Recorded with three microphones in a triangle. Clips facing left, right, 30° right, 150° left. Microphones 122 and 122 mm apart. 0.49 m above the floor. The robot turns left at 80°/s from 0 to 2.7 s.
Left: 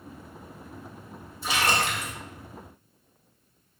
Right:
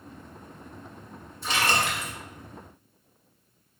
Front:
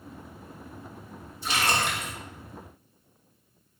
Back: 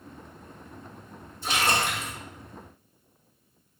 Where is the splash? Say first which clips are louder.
Even, back 1 dB; 175° left, 1.5 m; by 2.1 s 120° left, 1.5 m.